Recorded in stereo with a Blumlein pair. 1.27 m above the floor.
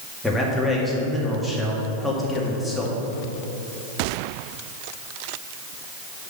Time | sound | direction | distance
0.2 | a man speaking | 5° left | 2.5 m